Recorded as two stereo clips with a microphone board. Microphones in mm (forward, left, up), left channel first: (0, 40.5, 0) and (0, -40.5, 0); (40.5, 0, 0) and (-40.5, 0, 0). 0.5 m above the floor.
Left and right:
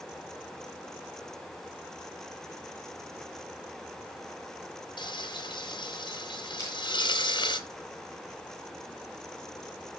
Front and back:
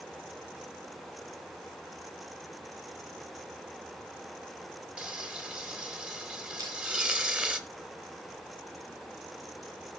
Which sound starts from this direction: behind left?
Crushing, at 6.6 s.